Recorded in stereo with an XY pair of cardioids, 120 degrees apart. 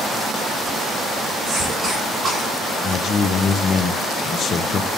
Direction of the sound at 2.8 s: 45° left.